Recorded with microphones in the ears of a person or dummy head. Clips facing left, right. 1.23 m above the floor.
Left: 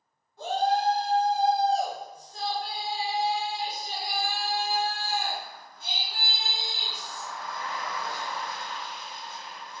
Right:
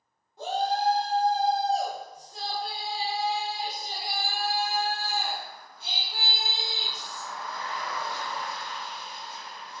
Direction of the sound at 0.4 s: 10° right (ahead or behind).